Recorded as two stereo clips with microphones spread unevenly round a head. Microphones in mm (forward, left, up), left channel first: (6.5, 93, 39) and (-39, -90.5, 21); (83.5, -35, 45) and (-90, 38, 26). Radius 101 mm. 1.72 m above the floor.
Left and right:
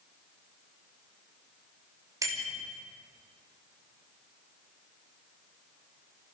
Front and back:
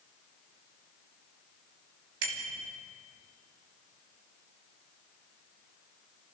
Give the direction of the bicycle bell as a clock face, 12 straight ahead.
6 o'clock.